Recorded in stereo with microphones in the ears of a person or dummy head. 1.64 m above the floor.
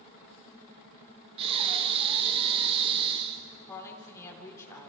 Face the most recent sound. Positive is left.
turn(degrees=10)  # may be behind; listen again after turning